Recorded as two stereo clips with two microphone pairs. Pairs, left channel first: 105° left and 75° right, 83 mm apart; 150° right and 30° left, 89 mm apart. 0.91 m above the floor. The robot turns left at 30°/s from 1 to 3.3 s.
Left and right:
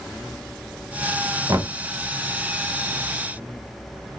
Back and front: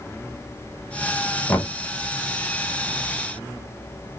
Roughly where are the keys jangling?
No keys jangling in this recording.